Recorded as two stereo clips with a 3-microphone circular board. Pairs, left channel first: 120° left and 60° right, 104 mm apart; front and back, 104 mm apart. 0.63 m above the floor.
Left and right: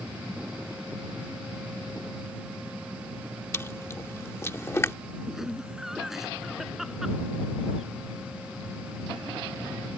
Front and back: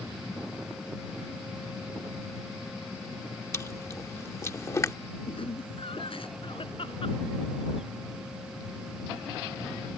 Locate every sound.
3.5 s chewing: 55° left
5.3 s laughter: 25° left